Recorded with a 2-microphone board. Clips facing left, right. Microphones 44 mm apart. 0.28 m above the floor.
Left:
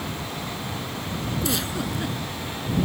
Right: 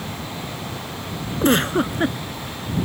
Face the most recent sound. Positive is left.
turn(degrees=-45)  # may be behind; listen again after turning